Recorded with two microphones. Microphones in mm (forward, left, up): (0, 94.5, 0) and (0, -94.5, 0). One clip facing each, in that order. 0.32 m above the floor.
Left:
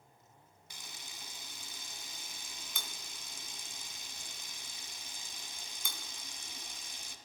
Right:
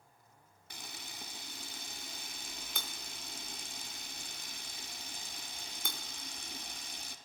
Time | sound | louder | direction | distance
0.7 | a camera shutter | right 4 dB | 60° right (ahead or behind) | 0.7 m